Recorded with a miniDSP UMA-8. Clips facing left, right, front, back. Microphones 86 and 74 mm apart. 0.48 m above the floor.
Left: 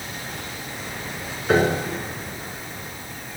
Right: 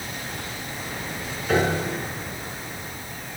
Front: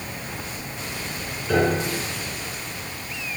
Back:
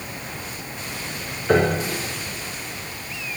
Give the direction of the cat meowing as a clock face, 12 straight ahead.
No cat meowing in this recording.